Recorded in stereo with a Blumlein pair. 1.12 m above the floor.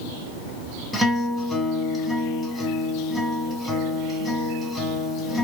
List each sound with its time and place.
0.9 s a guitar: straight ahead, 1.4 m